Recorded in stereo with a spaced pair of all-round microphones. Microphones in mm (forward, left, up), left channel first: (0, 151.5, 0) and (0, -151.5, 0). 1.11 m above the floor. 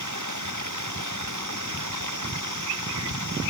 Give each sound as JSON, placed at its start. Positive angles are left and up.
{"t": 0.0, "sound": "running water", "side_deg": -75}